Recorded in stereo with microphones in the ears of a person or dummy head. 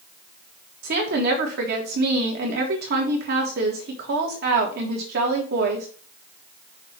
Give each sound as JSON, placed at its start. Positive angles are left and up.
{"t": 0.8, "sound": "a woman speaking", "side_deg": -60, "distance_m": 1.7}